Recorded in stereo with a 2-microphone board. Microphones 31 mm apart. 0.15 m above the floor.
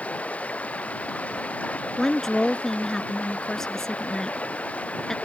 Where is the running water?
50° left (ahead or behind).